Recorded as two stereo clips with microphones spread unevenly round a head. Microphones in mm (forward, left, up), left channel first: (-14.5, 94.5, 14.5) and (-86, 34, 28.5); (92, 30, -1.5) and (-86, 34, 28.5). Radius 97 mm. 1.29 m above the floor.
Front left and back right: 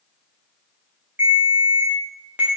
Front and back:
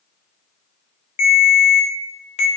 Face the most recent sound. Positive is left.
turn(degrees=-60)